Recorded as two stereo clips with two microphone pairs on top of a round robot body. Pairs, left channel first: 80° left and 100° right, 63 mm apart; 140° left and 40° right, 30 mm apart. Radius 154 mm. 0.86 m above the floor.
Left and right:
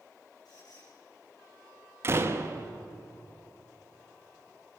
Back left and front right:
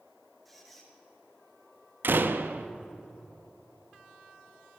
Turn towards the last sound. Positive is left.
turn(degrees=-50)